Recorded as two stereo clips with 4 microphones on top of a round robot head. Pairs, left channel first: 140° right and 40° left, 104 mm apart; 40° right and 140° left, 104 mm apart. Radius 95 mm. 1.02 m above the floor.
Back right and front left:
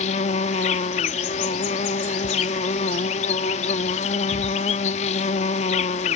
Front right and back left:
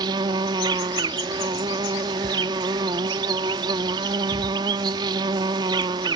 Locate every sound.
0.0 s an insect: 165° right